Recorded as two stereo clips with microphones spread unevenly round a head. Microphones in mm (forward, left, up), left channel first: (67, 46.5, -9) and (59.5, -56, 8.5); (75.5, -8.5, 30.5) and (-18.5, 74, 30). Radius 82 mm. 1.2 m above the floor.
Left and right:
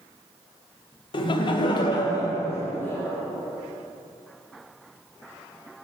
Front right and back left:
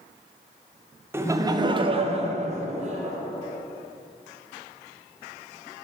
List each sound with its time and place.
1.1 s laughter: 70° left, 0.7 m; by 3.2 s 165° left, 0.9 m